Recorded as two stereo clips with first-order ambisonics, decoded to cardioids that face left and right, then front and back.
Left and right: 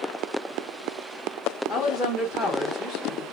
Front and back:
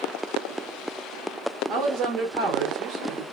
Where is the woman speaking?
170° right, 1.1 m.